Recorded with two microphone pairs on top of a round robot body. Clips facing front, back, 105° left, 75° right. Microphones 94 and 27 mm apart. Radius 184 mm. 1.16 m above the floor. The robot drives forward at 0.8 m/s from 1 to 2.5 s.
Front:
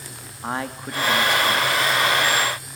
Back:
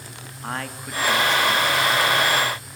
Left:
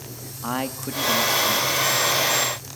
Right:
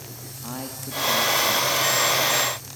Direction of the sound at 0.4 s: 75° left.